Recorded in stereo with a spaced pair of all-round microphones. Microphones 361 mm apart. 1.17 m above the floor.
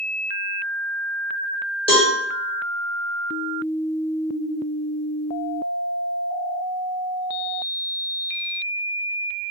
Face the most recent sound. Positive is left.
turn(degrees=15)  # may be behind; listen again after turning